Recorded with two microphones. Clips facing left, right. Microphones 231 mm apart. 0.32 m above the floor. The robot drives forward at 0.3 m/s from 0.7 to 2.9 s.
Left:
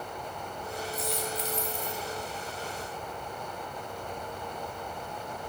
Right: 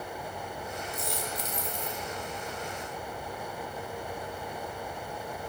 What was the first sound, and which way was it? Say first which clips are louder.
A dropped coin: left 2 dB; 55° right (ahead or behind).